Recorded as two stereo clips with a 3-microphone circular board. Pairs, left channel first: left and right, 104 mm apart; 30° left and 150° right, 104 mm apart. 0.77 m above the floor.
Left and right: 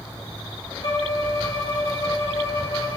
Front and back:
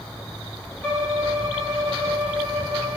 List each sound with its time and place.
0.8 s a violin: 100° left, 1.7 m